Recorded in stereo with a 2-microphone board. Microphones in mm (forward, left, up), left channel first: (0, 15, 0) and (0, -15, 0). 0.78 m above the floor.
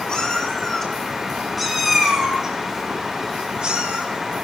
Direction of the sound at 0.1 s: 25° left (ahead or behind).